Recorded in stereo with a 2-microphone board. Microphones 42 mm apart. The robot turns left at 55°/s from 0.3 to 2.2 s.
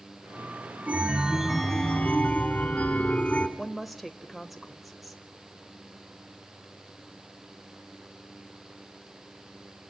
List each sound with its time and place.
0.9 s a chime: 140° right, 1.6 m; by 3.5 s 145° left, 1.6 m
3.6 s a woman speaking: centre (ahead or behind), 0.8 m